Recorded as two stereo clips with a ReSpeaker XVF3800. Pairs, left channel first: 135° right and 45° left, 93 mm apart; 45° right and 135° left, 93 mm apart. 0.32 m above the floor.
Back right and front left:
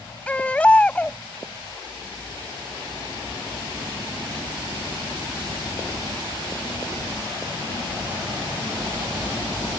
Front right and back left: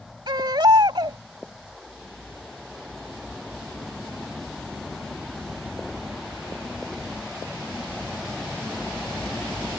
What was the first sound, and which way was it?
A baby crying, 155° left.